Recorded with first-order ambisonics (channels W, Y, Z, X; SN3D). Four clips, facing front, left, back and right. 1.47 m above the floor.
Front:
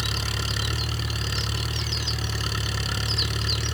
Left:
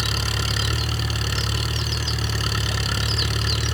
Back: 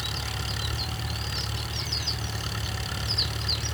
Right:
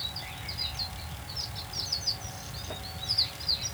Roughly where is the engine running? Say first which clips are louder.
Left 12 dB, front 4 dB; left.